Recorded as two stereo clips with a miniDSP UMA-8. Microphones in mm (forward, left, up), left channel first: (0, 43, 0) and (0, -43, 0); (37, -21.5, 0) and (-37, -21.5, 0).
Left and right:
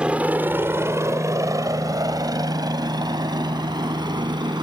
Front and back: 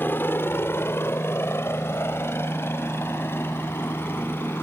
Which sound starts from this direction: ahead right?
A helicopter, at 0.0 s.